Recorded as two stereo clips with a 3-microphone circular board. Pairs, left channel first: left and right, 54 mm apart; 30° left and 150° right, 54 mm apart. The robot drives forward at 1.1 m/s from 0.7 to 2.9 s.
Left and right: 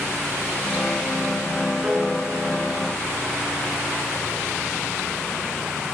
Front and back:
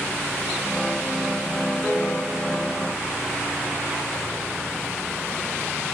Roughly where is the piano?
Ahead right.